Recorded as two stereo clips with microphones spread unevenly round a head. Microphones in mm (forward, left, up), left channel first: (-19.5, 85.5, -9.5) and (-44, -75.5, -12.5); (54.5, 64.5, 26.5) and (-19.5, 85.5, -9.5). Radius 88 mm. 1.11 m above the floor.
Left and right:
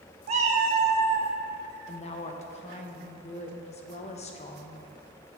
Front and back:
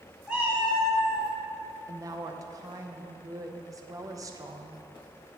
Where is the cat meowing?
80° right, 0.6 m; by 1.3 s 145° right, 1.1 m.